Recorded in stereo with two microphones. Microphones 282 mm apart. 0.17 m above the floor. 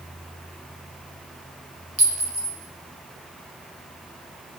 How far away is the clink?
About 3 m.